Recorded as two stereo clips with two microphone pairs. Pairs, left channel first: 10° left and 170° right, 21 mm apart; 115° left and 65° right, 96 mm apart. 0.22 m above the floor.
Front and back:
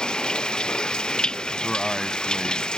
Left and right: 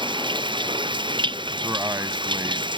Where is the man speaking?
45° right.